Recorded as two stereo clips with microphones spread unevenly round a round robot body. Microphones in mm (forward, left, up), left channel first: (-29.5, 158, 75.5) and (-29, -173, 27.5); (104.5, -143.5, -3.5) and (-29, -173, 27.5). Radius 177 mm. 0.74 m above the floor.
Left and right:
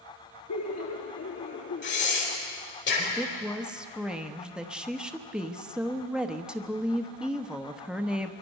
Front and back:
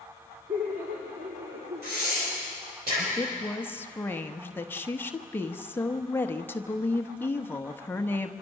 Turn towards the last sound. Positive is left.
turn(degrees=-20)